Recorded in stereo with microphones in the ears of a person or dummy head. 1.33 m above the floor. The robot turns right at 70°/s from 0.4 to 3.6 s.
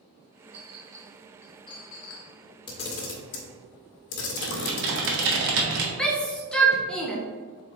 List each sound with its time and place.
0.5 s a clink: 40° right (ahead or behind), 1.1 m; by 2.3 s 55° left (ahead or behind), 1.1 m
2.7 s a camera shutter: 25° left (ahead or behind), 1.3 m; by 5.4 s 60° left (ahead or behind), 1.3 m
4.4 s typing on a keyboard: 65° right (ahead or behind), 1.2 m
6.0 s a shout: 5° left (ahead or behind), 1.2 m